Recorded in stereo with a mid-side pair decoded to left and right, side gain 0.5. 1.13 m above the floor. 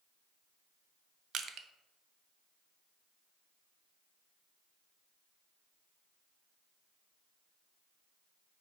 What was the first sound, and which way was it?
Crushing, 60° right.